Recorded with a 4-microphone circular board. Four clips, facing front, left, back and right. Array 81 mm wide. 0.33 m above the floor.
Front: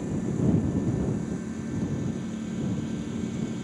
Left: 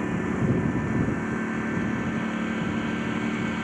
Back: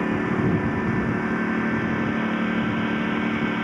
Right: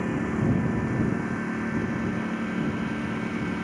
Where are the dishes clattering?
I don't hear dishes clattering.